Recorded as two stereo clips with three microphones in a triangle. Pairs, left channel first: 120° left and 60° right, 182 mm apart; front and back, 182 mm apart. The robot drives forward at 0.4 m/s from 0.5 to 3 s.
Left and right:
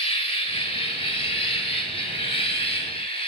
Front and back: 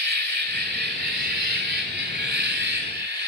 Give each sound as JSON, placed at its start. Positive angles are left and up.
{"t": 0.0, "sound": "an insect", "azimuth_deg": 175, "distance_m": 1.5}